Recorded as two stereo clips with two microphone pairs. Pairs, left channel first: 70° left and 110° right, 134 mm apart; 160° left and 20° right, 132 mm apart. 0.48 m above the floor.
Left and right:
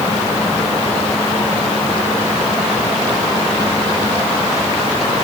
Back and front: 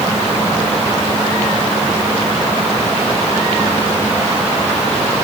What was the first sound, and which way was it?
Only background noise.